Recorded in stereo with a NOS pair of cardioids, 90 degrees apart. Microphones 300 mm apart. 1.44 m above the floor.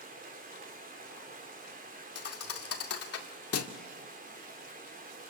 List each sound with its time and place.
0.0 s running water: 30° right, 4.5 m
2.1 s a thud: 55° left, 2 m